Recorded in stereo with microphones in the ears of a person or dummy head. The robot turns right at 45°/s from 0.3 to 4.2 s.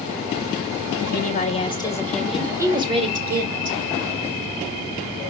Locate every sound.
1.0 s a woman speaking: 125° left, 1.9 m; by 3.8 s 110° right, 1.9 m